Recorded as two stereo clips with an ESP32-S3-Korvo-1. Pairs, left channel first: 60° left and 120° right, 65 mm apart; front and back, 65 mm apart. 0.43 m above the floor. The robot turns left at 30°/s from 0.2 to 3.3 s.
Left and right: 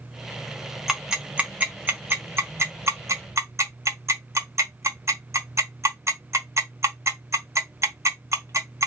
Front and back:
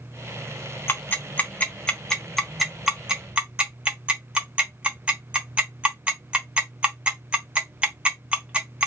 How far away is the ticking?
About 1.2 m.